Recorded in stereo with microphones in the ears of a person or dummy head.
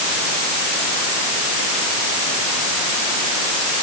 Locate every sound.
Only background noise.